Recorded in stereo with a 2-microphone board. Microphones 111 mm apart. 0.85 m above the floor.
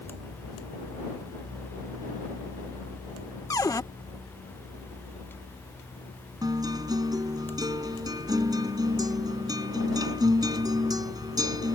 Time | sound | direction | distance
3.5 | a cupboard door | 30° left (ahead or behind) | ?
6.4 | a guitar | 35° right (ahead or behind) | ?